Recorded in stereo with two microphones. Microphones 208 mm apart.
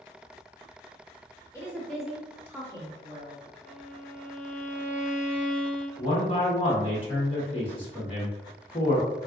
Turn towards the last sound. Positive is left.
turn(degrees=25)  # may be behind; listen again after turning